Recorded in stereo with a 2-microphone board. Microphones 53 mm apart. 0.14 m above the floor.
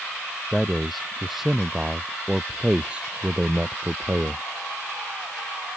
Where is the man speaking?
Centre (ahead or behind); by 4.4 s 35° right (ahead or behind).